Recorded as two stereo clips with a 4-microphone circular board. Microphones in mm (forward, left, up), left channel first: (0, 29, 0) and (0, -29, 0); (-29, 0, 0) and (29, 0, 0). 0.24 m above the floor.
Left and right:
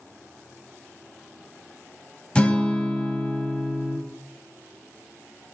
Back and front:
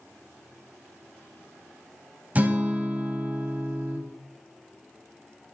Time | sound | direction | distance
2.4 | a guitar | 35° left | 0.5 m